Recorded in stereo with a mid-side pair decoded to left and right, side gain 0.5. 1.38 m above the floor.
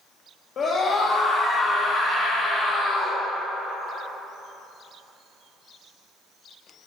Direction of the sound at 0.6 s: 60° left.